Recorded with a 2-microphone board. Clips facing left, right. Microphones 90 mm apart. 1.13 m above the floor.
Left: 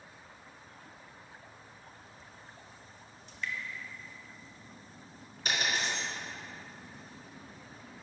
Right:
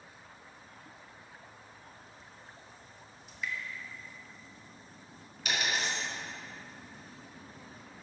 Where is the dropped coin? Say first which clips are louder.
Even; 40° left (ahead or behind), 2.5 m.